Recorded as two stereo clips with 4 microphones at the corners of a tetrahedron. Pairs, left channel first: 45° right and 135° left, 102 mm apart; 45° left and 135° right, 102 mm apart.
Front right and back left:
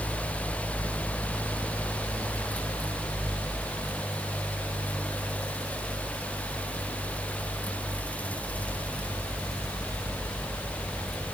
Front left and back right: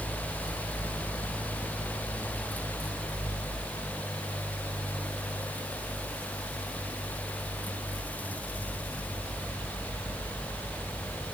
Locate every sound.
Only background noise.